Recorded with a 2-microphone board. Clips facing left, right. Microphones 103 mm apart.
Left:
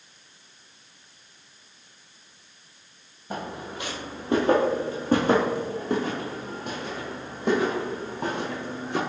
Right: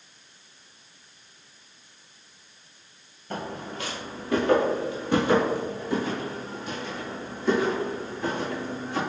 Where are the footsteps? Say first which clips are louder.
Even; 15° left (ahead or behind), 1.8 m; by 9.0 s 75° left (ahead or behind), 3 m.